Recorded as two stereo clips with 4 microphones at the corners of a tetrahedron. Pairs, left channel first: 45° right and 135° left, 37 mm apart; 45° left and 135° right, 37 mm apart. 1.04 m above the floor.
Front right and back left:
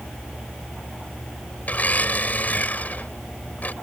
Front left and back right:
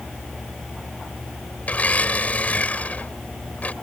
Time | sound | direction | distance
1.6 | a blender | 5° right | ?